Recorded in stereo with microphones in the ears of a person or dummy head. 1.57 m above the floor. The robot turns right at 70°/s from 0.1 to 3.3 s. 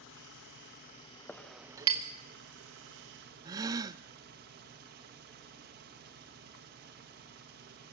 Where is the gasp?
20° right (ahead or behind), 0.6 m.